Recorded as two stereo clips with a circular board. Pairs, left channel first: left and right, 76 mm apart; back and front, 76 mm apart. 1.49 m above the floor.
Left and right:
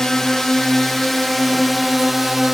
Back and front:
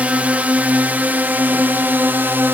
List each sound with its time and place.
0.0 s a drone: 20° left; by 2.5 s 5° right